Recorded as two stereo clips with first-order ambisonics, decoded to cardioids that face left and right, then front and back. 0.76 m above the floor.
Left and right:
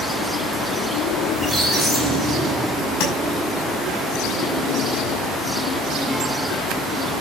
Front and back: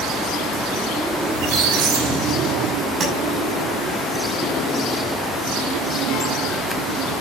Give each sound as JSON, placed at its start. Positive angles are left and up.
{"t": 1.3, "sound": "a squeak", "azimuth_deg": 175, "distance_m": 4.5}
{"t": 3.0, "sound": "tapping", "azimuth_deg": 110, "distance_m": 8.0}